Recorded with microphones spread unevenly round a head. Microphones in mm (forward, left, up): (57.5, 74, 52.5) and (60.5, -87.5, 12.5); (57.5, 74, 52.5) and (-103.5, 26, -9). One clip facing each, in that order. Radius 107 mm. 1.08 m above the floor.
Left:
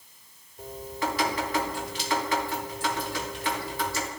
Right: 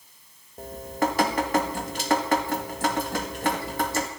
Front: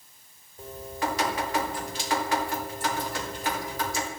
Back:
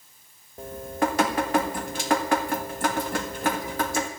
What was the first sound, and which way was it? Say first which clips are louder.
Dripping: right 5 dB, back 6 dB; 130° right.